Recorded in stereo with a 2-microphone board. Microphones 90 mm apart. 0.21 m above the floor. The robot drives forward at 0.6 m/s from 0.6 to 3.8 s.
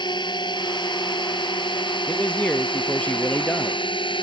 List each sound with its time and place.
0.0 s a drone: 55° left (ahead or behind); by 4.2 s 65° left (ahead or behind)
2.1 s a man speaking: 15° left (ahead or behind); by 3.8 s 20° left (ahead or behind)